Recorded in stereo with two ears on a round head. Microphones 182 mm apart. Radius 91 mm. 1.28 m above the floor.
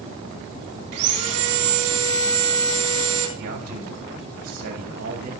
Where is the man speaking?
85° right, 6 m.